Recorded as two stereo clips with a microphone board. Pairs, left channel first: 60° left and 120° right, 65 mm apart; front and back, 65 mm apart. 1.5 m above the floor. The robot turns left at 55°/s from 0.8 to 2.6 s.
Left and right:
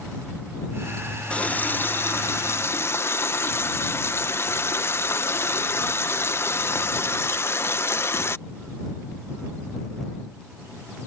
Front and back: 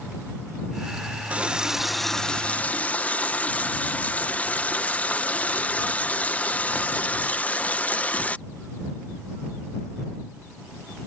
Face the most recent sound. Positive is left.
turn(degrees=50)